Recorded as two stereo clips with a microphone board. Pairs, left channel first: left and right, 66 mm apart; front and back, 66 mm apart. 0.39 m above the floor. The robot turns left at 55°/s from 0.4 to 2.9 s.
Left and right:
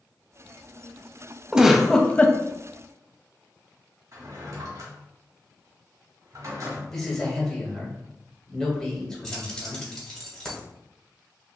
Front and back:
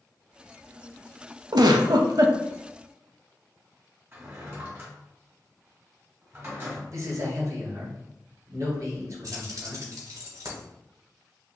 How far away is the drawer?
About 1.8 m.